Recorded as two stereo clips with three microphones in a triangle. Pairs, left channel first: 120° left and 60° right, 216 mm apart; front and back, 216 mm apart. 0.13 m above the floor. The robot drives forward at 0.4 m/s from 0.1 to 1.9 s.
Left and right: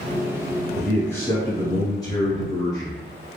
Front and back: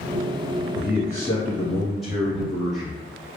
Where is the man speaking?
45° left, 1.2 m; by 3.0 s 90° left, 1.1 m.